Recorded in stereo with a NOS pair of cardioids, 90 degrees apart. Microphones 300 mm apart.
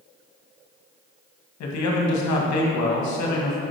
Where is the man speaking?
70° left, 1.5 m.